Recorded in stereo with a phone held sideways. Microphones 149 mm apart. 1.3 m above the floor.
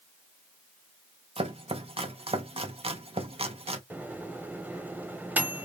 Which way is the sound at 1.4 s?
45° right (ahead or behind).